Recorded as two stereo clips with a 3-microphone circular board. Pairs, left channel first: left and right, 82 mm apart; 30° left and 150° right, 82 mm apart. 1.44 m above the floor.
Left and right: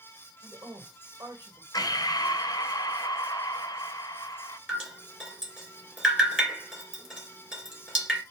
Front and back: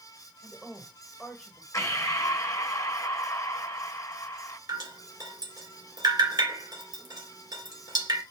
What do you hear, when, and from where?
0.4 s a woman speaking: 55° right, 1.5 m
1.7 s breathing: 65° left, 0.7 m
4.7 s dripping: 170° right, 1.9 m